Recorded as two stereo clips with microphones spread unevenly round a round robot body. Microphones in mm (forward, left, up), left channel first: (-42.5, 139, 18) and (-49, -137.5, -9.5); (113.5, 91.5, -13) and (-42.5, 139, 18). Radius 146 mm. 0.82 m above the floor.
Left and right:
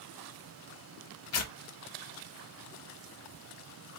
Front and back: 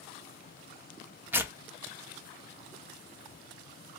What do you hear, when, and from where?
1.3 s tearing paper: 80° left, 0.9 m